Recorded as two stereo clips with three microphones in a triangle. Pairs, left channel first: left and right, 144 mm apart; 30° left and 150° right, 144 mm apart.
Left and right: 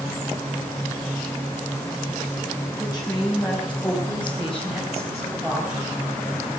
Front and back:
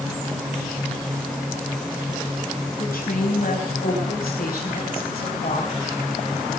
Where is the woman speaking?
20° left, 5.5 m; by 5.7 s 10° right, 4 m.